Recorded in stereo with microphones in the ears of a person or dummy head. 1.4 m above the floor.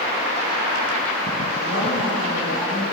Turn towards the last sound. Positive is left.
turn(degrees=75)  # may be behind; listen again after turning